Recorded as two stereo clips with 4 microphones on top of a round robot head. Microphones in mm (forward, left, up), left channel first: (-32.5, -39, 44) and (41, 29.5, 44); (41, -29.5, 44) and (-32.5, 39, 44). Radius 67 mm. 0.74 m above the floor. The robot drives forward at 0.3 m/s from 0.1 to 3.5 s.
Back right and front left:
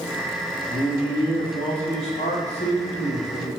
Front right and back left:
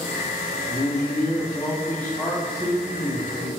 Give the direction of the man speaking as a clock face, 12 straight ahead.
3 o'clock.